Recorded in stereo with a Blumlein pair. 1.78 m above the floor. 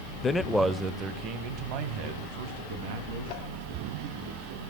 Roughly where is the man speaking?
Ahead.